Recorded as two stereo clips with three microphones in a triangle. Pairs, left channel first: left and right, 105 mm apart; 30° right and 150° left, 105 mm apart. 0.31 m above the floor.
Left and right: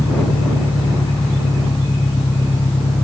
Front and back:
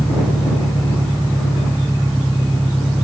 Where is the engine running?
60° left.